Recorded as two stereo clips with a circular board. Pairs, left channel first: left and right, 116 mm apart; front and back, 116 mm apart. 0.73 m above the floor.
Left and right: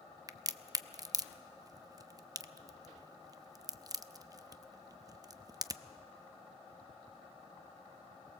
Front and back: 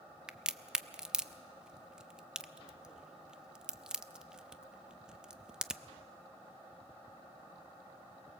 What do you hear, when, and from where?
0.3 s a crack: 105° right, 0.5 m